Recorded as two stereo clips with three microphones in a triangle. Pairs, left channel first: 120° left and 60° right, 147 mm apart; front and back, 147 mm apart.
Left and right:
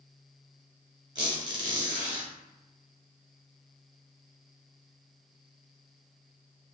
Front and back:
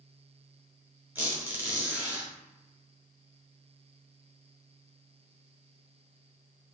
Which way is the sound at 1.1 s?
105° right.